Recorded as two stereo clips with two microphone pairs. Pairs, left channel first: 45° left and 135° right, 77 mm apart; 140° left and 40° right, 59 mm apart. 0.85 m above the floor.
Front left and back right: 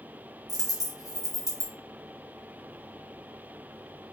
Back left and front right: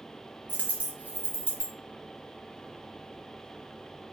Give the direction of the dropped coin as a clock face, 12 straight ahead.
11 o'clock.